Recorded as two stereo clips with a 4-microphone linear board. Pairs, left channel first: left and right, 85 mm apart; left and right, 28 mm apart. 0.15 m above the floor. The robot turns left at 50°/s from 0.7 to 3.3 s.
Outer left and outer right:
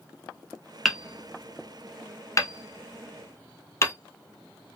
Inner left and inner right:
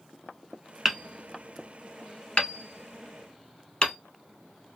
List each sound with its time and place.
0.8 s hammering: centre (ahead or behind), 0.6 m; by 4.0 s 35° left (ahead or behind), 0.6 m